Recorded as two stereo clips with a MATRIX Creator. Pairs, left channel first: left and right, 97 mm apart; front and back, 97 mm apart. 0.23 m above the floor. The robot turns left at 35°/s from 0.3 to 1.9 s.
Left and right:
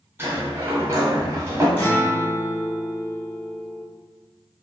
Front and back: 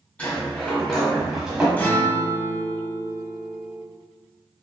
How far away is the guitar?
About 1.0 m.